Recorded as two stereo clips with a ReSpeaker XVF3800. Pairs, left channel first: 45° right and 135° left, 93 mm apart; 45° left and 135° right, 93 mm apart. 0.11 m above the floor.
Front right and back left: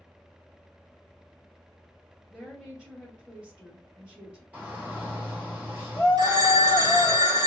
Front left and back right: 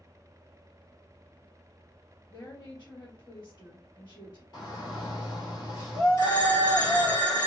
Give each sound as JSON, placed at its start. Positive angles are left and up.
{"t": 2.3, "sound": "a woman speaking", "azimuth_deg": 50, "distance_m": 1.8}
{"t": 4.5, "sound": "a shout", "azimuth_deg": 70, "distance_m": 1.6}
{"t": 6.2, "sound": "a phone ringing", "azimuth_deg": 90, "distance_m": 1.4}